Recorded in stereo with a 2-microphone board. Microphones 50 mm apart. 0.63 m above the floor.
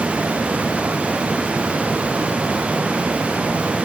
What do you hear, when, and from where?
Only background noise.